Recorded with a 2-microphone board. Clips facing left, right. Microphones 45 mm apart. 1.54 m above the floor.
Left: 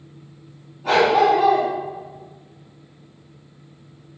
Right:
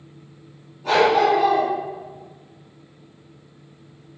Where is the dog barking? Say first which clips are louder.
Left 1 dB; 10° left (ahead or behind), 2.5 m.